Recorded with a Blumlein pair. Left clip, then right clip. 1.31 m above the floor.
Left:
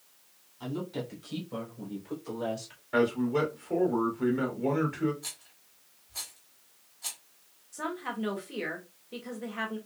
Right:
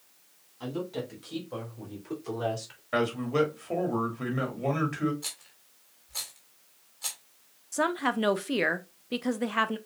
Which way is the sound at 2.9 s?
50° right.